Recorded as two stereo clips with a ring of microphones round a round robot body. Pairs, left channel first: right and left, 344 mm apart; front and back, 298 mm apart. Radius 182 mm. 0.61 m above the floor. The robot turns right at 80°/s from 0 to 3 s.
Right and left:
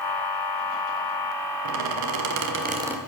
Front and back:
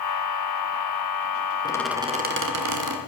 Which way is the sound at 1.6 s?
75° left.